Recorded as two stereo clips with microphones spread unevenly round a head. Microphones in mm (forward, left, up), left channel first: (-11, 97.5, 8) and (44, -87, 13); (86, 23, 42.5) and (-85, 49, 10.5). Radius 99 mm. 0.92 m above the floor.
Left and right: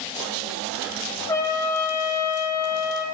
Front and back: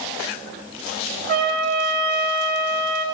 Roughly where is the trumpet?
Behind.